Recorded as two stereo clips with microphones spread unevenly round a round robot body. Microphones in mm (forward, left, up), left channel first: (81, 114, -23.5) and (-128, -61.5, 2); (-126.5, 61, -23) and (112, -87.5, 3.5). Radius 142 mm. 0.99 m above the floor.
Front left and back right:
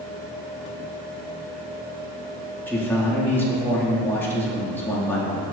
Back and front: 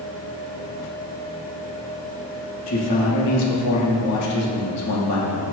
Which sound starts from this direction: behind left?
A man speaking, at 2.7 s.